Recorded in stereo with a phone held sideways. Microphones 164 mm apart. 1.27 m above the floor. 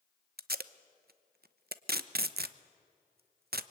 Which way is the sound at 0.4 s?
90° right.